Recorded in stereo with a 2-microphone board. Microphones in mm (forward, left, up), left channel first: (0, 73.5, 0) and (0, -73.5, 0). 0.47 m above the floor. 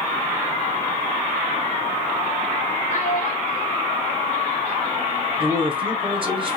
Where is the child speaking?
65° left (ahead or behind), 1.8 m; by 5.2 s 35° left (ahead or behind), 2 m.